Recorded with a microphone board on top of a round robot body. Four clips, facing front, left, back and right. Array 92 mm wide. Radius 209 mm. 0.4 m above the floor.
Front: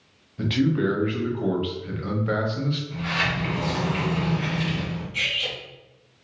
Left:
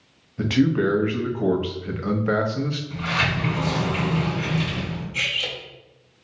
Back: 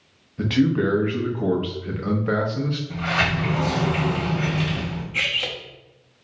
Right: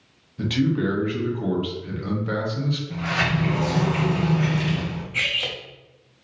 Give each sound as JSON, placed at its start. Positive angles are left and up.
{"t": 0.4, "sound": "a man speaking", "azimuth_deg": 115, "distance_m": 1.0}
{"t": 2.9, "sound": "a sliding door", "azimuth_deg": -155, "distance_m": 1.2}
{"t": 5.1, "sound": "cutlery clinking", "azimuth_deg": -140, "distance_m": 0.8}